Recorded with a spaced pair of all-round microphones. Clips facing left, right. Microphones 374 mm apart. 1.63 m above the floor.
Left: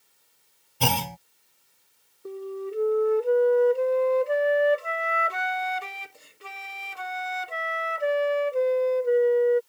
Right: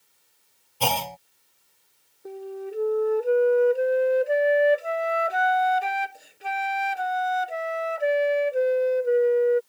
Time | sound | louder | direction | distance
0.8 | a clunk | even | 30° left (ahead or behind) | ?
2.2 | a flute | left 1 dB | 10° left (ahead or behind) | ?